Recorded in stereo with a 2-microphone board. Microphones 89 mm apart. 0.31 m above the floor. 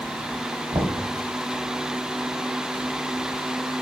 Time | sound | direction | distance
0.7 | knocking | 55° right (ahead or behind) | 1.5 m